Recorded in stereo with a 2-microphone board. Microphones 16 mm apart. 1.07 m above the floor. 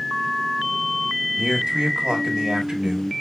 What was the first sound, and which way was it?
A man speaking, 55° right (ahead or behind).